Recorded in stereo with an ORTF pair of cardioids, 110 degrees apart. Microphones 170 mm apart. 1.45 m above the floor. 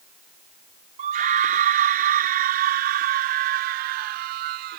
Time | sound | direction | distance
1.0 | a scream | 55° right | ?